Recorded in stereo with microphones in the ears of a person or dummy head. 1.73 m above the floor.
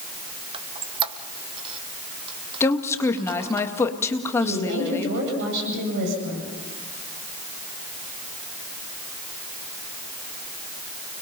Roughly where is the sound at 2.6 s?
Centre.